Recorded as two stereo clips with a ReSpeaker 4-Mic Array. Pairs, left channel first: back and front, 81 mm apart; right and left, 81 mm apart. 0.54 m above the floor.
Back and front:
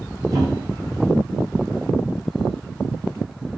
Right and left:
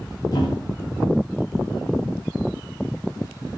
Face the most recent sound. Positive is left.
turn(degrees=-45)